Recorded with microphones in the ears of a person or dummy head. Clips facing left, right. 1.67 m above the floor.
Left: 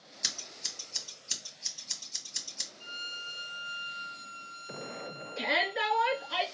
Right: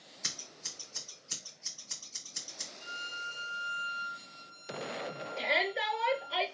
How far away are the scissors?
About 2.5 m.